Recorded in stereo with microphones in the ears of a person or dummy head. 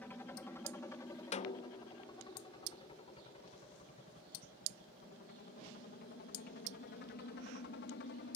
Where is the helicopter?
10° left (ahead or behind); by 8.4 s 60° left (ahead or behind).